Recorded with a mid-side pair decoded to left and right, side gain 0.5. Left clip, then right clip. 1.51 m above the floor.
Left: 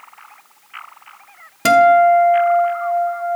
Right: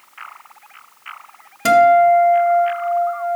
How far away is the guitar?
About 1.4 m.